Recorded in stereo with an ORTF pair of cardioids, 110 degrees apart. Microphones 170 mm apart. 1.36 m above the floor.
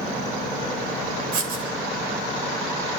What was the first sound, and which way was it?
Writing, 60° right.